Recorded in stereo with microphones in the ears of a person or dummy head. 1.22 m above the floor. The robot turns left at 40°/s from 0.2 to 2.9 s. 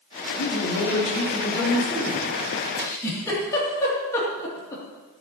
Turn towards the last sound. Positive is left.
turn(degrees=15)  # may be behind; listen again after turning